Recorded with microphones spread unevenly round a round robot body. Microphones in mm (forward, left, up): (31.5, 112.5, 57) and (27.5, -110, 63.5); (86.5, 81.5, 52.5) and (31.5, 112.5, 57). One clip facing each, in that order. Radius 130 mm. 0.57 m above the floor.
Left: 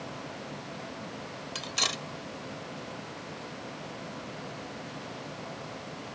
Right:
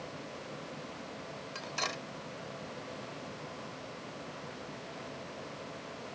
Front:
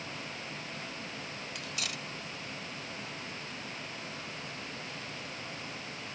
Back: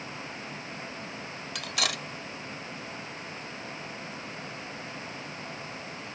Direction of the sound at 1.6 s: 135° left.